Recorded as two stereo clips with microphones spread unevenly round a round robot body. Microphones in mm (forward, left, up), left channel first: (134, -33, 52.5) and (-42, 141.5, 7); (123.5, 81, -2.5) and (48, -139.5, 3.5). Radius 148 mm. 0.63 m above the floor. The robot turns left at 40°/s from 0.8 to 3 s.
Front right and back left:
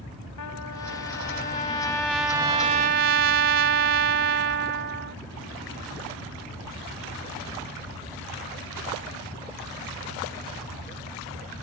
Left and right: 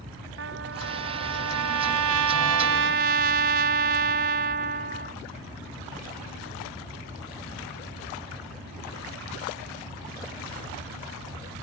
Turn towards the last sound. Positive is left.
turn(degrees=-170)